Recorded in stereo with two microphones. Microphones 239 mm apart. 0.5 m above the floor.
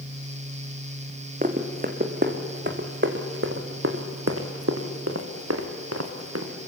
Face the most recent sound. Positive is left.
turn(degrees=-80)